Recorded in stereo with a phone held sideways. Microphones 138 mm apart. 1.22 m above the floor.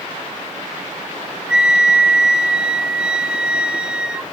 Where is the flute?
5° right (ahead or behind), 0.5 m.